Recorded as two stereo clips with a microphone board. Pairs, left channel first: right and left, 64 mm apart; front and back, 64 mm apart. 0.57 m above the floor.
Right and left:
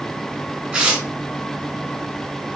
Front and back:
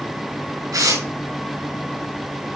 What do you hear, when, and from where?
0.7 s tearing paper: 160° left, 6 m